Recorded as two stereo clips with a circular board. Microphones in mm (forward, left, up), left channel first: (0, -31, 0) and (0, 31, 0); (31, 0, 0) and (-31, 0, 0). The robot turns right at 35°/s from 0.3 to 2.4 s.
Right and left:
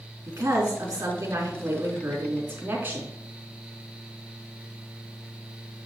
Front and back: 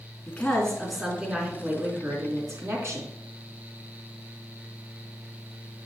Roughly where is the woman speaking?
Left.